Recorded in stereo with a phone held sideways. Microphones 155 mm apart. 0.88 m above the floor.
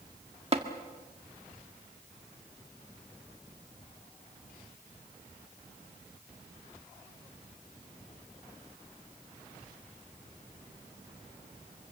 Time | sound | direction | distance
0.5 | tapping | 40° right (ahead or behind) | 1.8 m